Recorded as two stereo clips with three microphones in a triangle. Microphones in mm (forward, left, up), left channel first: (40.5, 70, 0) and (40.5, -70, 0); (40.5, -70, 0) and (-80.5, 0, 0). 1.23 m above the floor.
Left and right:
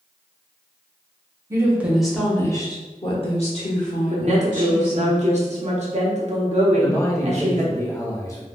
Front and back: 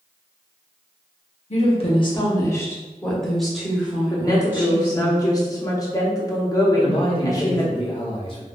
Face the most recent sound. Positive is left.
turn(degrees=20)